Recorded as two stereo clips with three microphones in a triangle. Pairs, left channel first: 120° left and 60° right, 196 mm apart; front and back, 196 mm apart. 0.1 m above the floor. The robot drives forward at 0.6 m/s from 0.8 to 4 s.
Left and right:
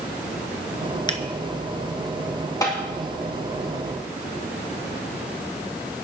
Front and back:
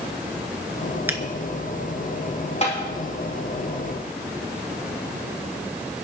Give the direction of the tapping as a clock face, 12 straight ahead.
10 o'clock.